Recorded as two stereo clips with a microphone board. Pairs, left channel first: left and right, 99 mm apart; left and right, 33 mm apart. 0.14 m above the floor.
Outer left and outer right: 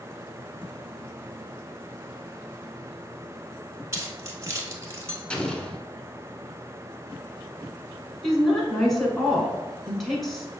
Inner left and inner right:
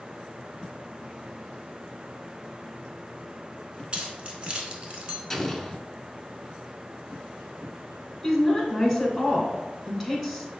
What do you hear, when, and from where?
3.9 s keys jangling: 35° right (ahead or behind), 0.9 m
5.3 s an explosion: 10° left (ahead or behind), 0.5 m
8.2 s a woman speaking: centre (ahead or behind), 1.1 m